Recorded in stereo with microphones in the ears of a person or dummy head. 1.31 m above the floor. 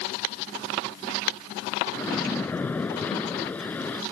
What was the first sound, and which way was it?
A splash, 10° left (ahead or behind).